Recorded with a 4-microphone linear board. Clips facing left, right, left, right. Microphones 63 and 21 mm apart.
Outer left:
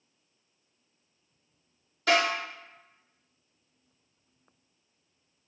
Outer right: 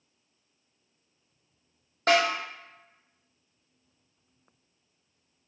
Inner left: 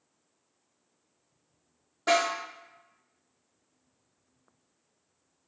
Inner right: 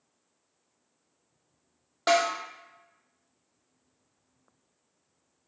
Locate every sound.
2.1 s a snare drum: 45° right (ahead or behind), 1.5 m